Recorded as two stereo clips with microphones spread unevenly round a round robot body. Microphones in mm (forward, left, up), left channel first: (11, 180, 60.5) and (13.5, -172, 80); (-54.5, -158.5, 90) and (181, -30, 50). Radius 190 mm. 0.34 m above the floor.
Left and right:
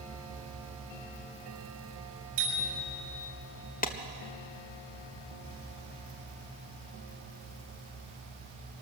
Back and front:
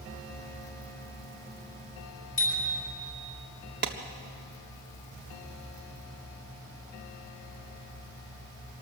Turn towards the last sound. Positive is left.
turn(degrees=35)